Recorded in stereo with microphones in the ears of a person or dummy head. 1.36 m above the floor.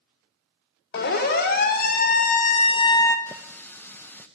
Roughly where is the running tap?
Centre.